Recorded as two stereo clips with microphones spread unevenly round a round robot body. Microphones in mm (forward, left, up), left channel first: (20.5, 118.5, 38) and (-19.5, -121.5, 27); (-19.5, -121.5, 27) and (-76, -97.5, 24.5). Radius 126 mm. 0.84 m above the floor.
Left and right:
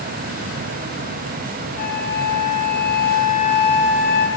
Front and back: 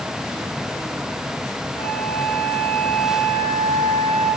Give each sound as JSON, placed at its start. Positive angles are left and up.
{"t": 1.8, "sound": "a flute", "azimuth_deg": 25, "distance_m": 1.0}